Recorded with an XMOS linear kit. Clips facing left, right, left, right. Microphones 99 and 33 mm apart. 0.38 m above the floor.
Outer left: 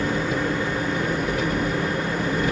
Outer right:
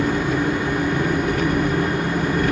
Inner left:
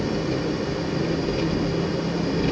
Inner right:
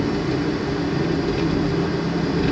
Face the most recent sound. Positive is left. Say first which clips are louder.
# outer right 4 dB, inner right 3 dB
turn(degrees=-65)  # may be behind; listen again after turning